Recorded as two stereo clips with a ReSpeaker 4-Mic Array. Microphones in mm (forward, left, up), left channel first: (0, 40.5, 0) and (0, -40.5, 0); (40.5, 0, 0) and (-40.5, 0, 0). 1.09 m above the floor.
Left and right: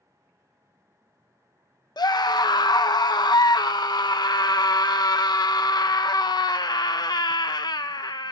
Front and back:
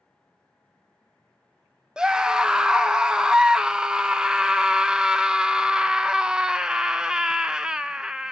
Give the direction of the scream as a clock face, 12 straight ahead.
9 o'clock.